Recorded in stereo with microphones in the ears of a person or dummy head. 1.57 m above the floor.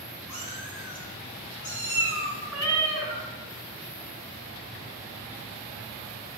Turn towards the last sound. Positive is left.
turn(degrees=15)  # may be behind; listen again after turning